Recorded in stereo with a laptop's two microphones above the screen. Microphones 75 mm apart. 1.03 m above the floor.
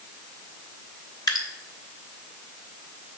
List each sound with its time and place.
1.3 s dripping: 60° left (ahead or behind), 1.2 m